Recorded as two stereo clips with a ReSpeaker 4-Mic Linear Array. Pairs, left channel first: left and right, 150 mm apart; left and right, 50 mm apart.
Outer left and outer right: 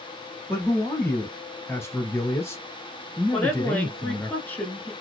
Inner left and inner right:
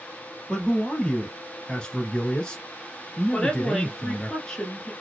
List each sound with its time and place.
0.5 s a man speaking: 15° left (ahead or behind), 1.1 m
3.3 s a woman speaking: 10° left (ahead or behind), 1.2 m